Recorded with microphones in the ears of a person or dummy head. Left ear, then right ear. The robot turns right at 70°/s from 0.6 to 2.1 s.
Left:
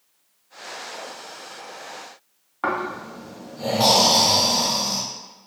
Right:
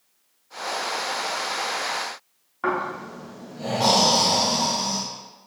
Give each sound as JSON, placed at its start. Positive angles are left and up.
{"t": 2.6, "sound": "snoring", "side_deg": 25, "distance_m": 0.6}